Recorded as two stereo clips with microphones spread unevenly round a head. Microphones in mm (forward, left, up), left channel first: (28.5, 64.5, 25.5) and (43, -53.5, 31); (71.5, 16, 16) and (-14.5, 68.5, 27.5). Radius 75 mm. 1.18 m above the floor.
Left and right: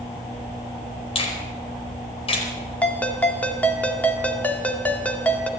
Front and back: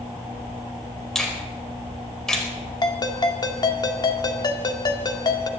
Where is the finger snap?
55° left, 4.5 m.